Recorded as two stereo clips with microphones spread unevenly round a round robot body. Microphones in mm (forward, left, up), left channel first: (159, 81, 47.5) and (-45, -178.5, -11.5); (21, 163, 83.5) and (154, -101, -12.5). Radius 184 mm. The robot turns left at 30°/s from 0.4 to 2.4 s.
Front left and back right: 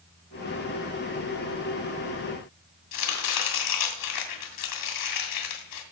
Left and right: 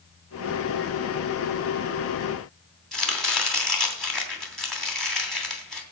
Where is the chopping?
30° left, 2.5 m.